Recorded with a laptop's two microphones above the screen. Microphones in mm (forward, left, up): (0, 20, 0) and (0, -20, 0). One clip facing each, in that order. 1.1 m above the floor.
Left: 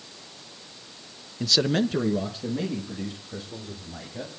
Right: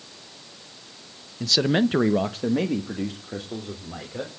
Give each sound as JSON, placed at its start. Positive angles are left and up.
{"t": 1.4, "sound": "a man speaking", "side_deg": 10, "distance_m": 0.9}